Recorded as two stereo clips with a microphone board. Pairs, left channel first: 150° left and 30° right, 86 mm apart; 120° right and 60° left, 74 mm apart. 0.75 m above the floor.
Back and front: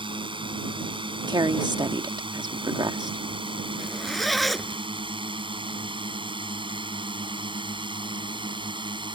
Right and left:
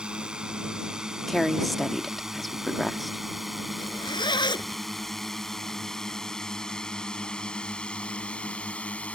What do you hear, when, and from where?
0.0 s a drone: 20° right; by 9.2 s 45° right
1.3 s a woman speaking: 30° right
3.8 s a zipper: 120° right